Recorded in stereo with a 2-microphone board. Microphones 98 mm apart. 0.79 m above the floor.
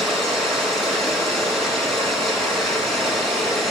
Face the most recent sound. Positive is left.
turn(degrees=5)  # may be behind; listen again after turning